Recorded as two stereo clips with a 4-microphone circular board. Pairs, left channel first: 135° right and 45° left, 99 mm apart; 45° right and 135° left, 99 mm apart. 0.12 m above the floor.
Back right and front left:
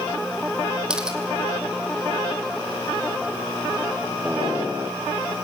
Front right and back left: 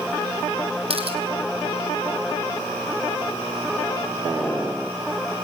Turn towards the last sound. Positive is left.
turn(degrees=125)